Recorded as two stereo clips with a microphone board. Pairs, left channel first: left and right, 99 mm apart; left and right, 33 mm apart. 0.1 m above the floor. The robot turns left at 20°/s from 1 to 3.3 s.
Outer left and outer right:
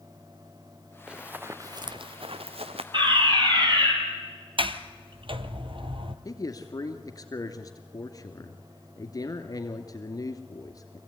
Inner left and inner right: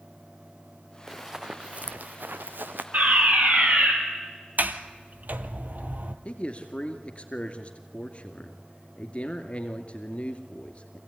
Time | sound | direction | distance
1.1 | running footsteps | 10° right (ahead or behind) | 0.9 m
2.9 | a fire alarm | 55° right (ahead or behind) | 4.5 m
4.6 | a sliding door | 60° right (ahead or behind) | 1.1 m
6.2 | a man speaking | 40° left (ahead or behind) | 2 m